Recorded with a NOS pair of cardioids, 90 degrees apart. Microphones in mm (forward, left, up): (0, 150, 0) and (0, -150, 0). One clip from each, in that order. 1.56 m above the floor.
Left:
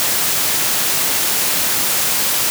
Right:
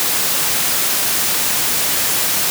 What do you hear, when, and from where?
Only background noise.